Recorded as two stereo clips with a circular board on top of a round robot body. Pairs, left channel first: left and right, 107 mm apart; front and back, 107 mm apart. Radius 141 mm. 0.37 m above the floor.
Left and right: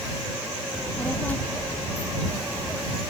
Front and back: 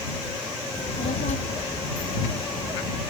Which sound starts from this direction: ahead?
A child speaking, at 0.7 s.